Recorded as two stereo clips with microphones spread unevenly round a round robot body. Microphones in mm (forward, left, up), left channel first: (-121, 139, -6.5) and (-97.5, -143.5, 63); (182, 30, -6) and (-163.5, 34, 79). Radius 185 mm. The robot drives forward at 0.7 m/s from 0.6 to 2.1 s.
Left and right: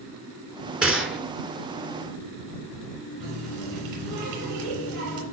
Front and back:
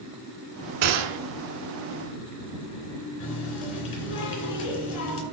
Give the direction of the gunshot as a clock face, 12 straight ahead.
6 o'clock.